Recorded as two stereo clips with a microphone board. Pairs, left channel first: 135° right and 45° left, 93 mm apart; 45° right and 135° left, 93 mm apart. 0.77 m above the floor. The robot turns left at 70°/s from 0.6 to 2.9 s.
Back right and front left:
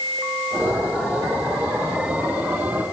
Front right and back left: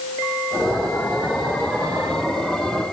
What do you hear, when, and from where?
Only background noise.